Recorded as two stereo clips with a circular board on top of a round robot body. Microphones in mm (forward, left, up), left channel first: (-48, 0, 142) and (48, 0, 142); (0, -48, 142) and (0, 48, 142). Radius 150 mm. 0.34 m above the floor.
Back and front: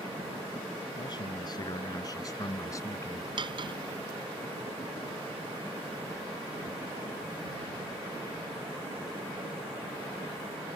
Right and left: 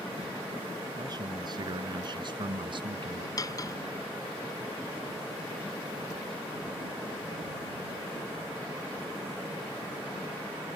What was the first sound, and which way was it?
A man speaking, 140° left.